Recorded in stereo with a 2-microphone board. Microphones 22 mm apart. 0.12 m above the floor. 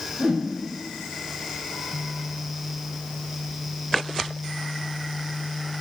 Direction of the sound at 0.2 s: 70° right (ahead or behind).